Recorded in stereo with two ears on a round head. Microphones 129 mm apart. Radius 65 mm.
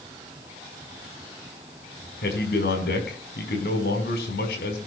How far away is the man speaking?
About 5 m.